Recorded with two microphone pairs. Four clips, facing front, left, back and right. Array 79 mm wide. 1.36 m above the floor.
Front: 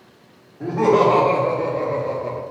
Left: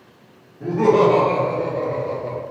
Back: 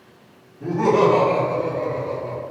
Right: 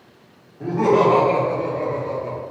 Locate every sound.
0.6 s laughter: 25° right, 1.8 m; by 2.4 s 5° left, 1.0 m